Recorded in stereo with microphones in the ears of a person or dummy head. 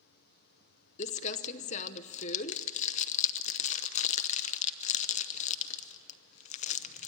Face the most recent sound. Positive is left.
turn(degrees=40)  # may be behind; listen again after turning